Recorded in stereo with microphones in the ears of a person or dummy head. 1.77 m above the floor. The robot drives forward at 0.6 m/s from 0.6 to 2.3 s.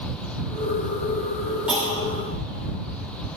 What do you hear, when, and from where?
1.7 s a clunk: centre (ahead or behind), 1.6 m